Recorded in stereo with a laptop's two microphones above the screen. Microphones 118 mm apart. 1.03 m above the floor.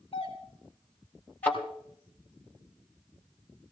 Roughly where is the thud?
Centre.